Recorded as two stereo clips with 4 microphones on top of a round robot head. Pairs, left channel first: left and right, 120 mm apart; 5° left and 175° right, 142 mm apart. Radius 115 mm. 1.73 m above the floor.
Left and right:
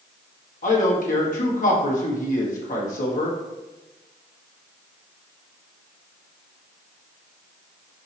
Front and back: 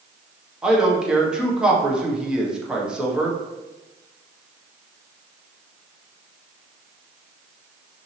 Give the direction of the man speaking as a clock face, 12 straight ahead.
9 o'clock.